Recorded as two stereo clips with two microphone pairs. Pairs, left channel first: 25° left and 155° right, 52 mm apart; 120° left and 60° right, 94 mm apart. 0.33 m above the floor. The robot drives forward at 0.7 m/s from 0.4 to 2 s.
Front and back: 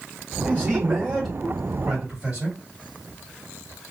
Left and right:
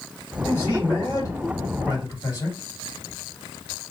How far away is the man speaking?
About 1.6 m.